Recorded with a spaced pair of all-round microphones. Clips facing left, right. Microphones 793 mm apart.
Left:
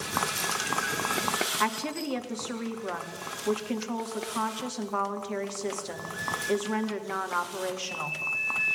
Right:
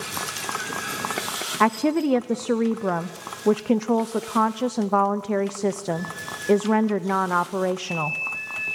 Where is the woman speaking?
75° right (ahead or behind), 1.0 m.